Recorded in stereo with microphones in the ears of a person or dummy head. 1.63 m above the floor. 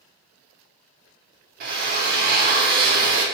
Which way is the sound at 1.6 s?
55° right (ahead or behind).